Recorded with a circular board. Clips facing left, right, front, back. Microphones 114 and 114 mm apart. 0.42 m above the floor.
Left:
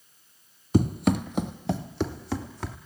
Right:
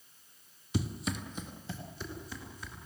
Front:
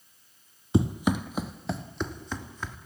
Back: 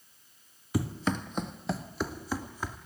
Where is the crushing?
I don't hear crushing.